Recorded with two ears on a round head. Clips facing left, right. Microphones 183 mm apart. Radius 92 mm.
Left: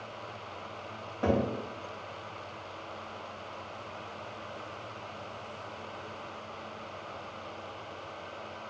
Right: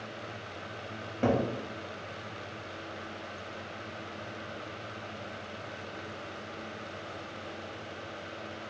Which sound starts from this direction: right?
A cupboard door, at 1.2 s.